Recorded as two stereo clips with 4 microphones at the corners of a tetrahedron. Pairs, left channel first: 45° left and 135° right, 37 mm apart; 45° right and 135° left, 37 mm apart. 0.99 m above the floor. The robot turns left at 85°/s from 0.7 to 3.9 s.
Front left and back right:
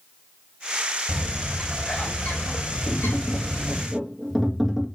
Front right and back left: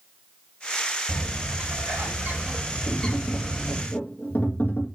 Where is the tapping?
45° left, 2.5 m; by 4.8 s 45° right, 2.5 m.